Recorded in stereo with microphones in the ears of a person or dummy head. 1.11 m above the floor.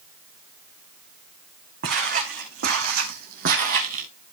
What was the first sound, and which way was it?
Footsteps, 60° right (ahead or behind).